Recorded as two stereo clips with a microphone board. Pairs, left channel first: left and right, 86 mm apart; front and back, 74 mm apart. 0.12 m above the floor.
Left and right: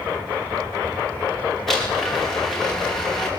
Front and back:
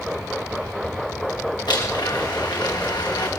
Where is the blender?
5° left, 7.5 m.